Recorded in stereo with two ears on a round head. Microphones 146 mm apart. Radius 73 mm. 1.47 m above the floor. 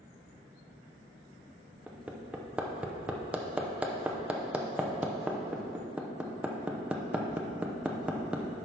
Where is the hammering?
10° right (ahead or behind), 0.8 m.